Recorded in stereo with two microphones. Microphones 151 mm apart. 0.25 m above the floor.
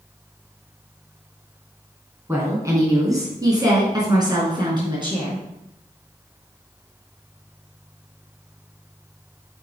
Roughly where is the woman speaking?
Centre.